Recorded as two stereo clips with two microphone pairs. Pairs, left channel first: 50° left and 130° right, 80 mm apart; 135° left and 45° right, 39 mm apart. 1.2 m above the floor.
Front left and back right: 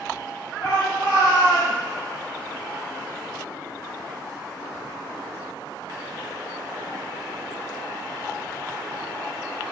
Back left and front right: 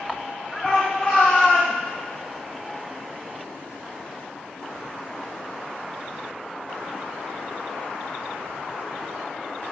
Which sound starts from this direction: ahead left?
A shout, at 0.6 s.